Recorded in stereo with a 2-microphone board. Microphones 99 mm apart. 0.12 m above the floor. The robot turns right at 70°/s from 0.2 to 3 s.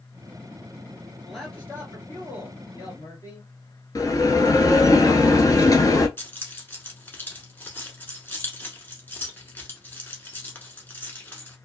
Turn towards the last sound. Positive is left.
turn(degrees=20)  # may be behind; listen again after turning